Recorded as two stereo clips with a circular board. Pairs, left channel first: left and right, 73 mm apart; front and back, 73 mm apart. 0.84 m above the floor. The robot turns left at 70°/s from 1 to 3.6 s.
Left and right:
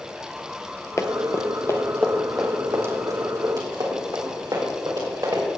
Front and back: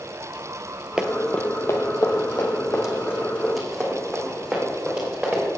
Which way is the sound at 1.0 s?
105° left.